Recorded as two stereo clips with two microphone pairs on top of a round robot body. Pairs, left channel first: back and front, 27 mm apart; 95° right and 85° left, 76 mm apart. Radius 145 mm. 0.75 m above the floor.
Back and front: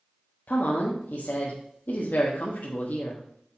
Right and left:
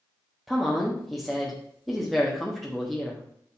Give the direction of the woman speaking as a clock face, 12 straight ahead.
6 o'clock.